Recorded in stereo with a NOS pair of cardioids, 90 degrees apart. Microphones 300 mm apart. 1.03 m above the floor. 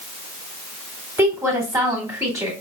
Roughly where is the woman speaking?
Ahead.